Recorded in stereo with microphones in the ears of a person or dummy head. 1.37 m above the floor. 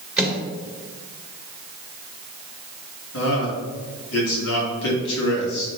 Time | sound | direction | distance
0.2 | a microwave | 5° right (ahead or behind) | 2.0 m
3.1 | a man speaking | 65° left (ahead or behind) | 2.5 m